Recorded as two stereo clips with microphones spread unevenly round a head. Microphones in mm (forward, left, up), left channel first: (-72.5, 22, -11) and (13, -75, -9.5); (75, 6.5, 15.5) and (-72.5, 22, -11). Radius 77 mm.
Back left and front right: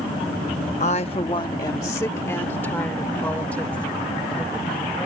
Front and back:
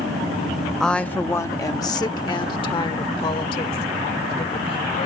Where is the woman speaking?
85° left; by 5.1 s 45° left.